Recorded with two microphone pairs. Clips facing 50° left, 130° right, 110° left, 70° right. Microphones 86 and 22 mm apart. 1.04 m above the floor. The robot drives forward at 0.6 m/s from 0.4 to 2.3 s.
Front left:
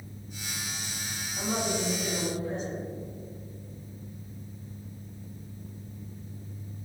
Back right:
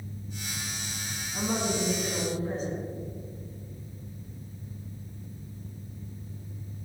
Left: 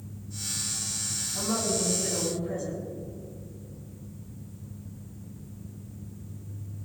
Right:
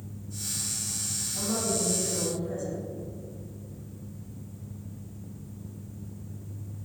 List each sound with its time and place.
1.3 s a woman speaking: 175° right, 5.5 m